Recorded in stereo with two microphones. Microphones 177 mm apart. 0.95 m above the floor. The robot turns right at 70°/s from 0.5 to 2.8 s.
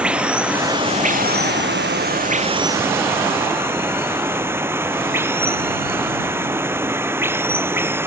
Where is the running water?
175° right; by 8.1 s 15° right.